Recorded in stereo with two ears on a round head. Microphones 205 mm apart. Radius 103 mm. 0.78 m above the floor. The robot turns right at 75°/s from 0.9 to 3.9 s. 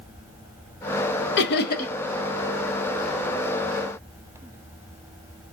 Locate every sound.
1.4 s laughter: 95° left, 0.6 m; by 1.9 s 140° left, 0.6 m